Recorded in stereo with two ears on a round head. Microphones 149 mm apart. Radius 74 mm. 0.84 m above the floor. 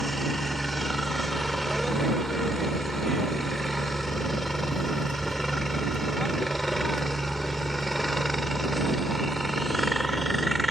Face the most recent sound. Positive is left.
turn(degrees=0)  # may be behind; listen again after turning